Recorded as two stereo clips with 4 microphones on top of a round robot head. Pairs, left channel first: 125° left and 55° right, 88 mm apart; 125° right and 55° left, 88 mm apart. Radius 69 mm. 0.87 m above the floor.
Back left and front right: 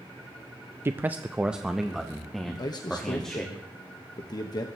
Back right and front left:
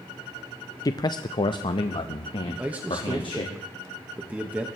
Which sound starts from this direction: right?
A man speaking, at 0.8 s.